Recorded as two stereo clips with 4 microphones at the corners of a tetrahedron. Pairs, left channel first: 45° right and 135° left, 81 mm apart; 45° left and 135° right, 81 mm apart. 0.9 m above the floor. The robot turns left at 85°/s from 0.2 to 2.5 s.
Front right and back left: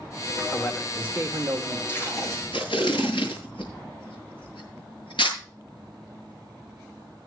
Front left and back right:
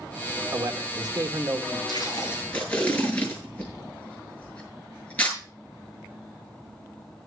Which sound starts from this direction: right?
A man speaking, at 0.5 s.